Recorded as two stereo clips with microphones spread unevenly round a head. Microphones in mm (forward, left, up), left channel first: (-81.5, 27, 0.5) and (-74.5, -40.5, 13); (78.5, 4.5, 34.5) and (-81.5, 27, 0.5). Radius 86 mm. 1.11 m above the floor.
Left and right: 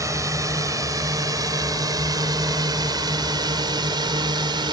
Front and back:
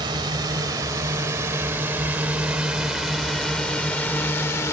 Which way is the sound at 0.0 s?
120° right.